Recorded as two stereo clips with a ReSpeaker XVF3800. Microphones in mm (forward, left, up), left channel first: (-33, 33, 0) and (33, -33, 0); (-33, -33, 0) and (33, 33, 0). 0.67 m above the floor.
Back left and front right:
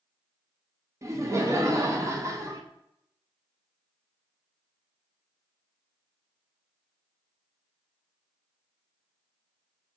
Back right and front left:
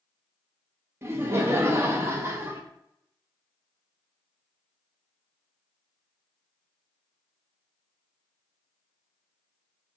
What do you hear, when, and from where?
1.0 s laughter: 5° right, 0.7 m